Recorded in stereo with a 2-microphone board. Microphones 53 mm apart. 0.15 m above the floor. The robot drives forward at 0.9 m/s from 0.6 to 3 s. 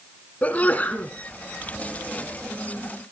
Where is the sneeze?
30° left (ahead or behind), 1.6 m.